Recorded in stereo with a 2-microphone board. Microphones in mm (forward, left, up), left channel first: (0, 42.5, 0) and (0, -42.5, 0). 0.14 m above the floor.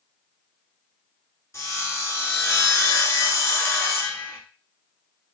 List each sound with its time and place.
1.5 s sawing: 35° left (ahead or behind), 1.1 m